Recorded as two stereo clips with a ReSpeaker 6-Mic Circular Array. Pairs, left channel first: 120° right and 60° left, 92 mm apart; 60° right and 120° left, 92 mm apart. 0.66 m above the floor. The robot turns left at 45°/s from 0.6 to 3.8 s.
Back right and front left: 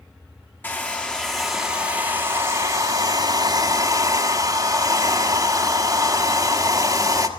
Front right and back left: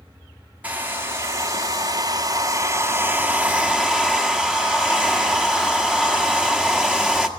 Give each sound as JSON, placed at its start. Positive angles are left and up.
{"t": 0.6, "sound": "a hair dryer", "azimuth_deg": -175, "distance_m": 1.3}